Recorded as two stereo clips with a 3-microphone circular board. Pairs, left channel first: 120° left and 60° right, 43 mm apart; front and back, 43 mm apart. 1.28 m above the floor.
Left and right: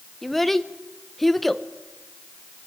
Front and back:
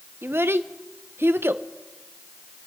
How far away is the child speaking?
About 0.6 m.